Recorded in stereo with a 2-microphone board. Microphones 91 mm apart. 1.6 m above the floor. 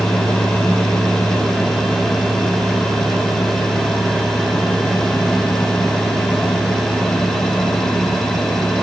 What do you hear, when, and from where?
Only background noise.